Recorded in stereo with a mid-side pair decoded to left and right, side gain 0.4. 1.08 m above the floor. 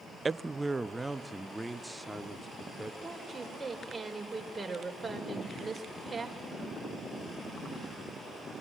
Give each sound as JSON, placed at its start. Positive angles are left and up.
{"t": 0.2, "sound": "a man speaking", "azimuth_deg": -30, "distance_m": 0.6}
{"t": 3.0, "sound": "a woman speaking", "azimuth_deg": -20, "distance_m": 4.5}